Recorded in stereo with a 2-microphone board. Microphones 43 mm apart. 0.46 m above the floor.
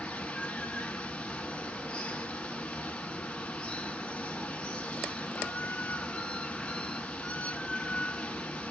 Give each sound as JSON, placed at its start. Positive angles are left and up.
{"t": 0.0, "sound": "running water", "side_deg": 25, "distance_m": 0.8}